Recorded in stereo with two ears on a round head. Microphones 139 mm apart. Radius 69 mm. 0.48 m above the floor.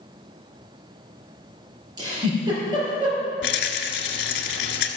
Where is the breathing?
I don't hear breathing.